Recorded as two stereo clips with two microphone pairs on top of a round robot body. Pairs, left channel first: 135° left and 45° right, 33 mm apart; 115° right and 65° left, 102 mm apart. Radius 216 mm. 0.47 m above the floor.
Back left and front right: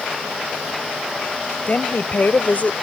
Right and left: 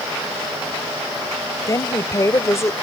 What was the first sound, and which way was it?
A woman speaking, 175° right.